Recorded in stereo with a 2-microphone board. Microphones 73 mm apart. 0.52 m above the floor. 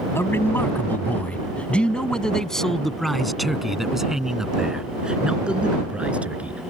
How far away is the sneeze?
No sneeze in this recording.